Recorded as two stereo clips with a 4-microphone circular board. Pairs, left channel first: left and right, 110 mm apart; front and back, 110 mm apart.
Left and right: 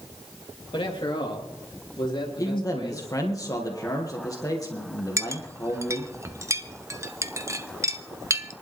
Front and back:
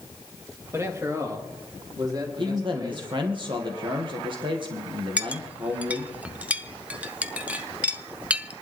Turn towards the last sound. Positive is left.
turn(degrees=-115)